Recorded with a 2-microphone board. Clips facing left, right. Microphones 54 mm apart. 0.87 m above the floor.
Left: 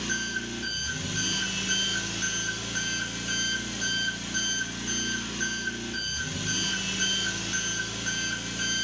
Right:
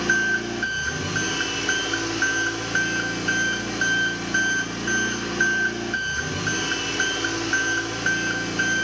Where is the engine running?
50° right (ahead or behind), 2.5 m.